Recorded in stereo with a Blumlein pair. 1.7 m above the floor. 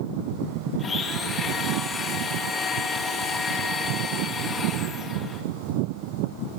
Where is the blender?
20° left, 2.5 m.